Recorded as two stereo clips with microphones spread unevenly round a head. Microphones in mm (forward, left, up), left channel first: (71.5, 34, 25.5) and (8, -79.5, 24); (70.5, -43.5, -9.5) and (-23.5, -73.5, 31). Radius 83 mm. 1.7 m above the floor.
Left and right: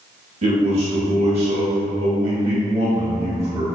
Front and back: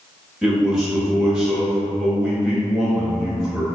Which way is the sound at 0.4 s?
85° right.